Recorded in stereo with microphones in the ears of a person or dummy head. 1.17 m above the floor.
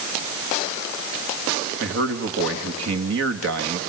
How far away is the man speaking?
About 2.0 m.